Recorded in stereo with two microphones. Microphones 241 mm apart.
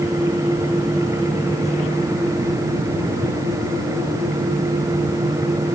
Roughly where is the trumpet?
I don't hear a trumpet.